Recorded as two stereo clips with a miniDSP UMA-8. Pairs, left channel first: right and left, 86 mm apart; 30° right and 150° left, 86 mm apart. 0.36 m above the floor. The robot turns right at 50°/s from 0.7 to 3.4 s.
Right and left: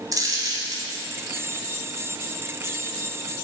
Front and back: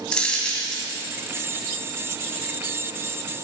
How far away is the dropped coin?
About 1.3 m.